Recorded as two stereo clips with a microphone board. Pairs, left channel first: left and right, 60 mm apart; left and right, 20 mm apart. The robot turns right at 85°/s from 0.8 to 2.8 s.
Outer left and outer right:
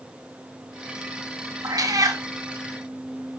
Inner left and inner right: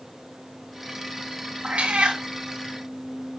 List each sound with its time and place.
1.6 s a cat meowing: 105° right, 1.5 m; by 2.2 s 55° right, 1.5 m